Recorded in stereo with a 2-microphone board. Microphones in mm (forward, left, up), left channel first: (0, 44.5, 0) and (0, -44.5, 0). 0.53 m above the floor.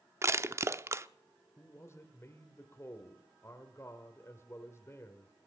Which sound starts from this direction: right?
Crushing, at 0.2 s.